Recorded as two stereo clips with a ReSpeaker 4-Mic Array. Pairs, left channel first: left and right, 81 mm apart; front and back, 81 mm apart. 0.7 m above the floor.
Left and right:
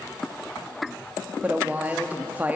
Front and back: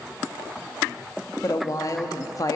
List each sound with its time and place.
1.4 s a woman speaking: 25° right, 0.7 m